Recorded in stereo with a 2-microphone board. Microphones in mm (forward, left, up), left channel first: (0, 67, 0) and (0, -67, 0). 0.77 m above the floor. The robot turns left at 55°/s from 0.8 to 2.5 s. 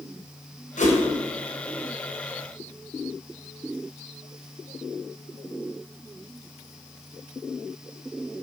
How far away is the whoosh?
About 3 m.